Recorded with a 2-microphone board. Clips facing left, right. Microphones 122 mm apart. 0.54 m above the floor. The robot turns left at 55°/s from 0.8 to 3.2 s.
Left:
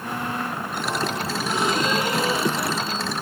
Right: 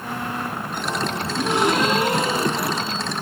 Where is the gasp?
85° right, 8 m; by 3.1 s straight behind, 8 m.